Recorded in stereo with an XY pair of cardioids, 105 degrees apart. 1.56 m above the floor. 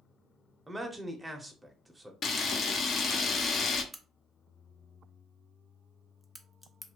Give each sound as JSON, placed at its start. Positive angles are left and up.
{"t": 0.7, "sound": "a man speaking", "azimuth_deg": -10, "distance_m": 0.8}
{"t": 2.2, "sound": "a camera shutter", "azimuth_deg": 50, "distance_m": 0.7}
{"t": 3.9, "sound": "a crack", "azimuth_deg": 0, "distance_m": 0.6}